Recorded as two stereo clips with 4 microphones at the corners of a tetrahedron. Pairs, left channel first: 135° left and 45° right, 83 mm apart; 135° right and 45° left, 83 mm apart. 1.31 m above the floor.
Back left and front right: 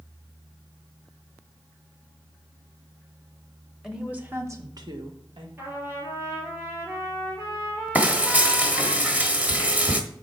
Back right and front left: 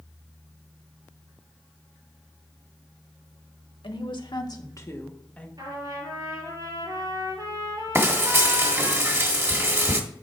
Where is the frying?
15° left, 1.3 m.